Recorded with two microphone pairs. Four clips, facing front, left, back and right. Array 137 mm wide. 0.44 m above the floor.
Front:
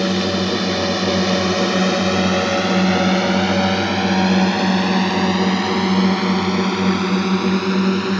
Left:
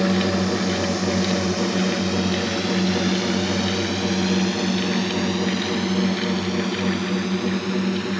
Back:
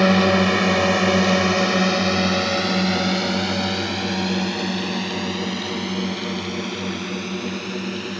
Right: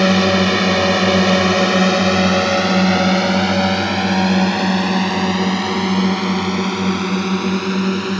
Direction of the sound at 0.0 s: 125° right.